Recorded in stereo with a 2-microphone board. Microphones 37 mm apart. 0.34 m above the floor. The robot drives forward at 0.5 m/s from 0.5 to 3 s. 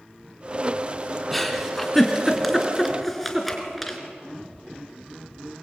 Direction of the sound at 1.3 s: Centre (ahead or behind).